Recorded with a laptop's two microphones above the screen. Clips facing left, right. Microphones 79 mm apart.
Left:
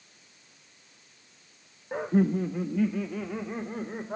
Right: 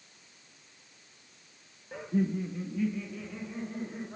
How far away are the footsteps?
No footsteps in this recording.